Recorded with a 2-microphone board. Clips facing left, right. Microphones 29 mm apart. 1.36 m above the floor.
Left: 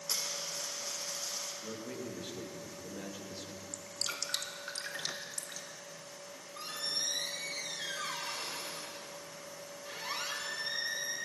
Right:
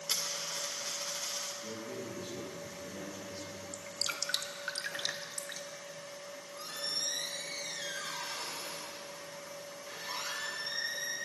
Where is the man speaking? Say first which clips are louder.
Even; 30° left (ahead or behind), 2 m.